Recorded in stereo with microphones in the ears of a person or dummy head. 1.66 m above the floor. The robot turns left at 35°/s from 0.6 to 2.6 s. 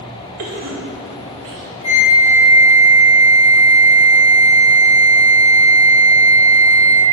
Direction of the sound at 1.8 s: 35° left (ahead or behind).